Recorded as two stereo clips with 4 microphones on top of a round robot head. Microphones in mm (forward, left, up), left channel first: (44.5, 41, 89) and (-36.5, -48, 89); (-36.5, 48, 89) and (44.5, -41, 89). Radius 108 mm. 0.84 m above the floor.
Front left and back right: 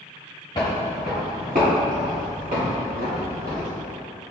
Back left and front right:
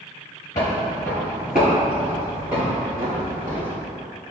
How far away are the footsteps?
About 0.8 m.